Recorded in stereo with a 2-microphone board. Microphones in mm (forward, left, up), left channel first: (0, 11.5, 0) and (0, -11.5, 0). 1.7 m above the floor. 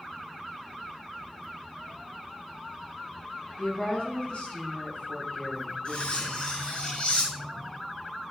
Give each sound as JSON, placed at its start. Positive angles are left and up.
{"t": 3.6, "sound": "a woman speaking", "side_deg": 55, "distance_m": 2.0}
{"t": 5.8, "sound": "cutlery clinking", "side_deg": 45, "distance_m": 1.8}